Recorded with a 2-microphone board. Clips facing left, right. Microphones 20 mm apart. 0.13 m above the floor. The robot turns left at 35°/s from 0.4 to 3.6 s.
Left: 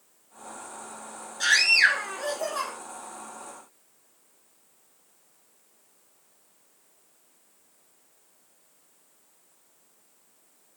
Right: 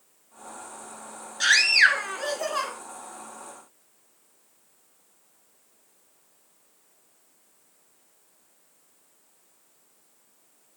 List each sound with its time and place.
1.4 s a scream: 45° right, 1.2 m; by 2.7 s 95° right, 1.2 m